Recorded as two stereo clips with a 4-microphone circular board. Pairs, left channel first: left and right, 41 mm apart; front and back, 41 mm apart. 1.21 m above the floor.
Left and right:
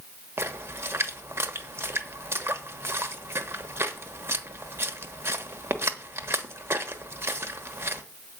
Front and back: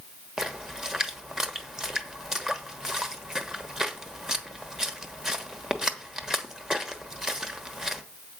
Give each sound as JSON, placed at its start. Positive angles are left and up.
{"t": 0.4, "sound": "a splash", "azimuth_deg": -100, "distance_m": 1.1}